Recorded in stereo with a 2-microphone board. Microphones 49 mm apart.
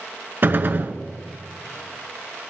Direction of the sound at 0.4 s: 45° right (ahead or behind).